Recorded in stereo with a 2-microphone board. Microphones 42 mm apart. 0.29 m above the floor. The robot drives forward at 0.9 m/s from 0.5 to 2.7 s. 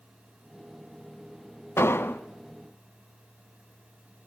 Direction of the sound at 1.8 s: 75° left (ahead or behind).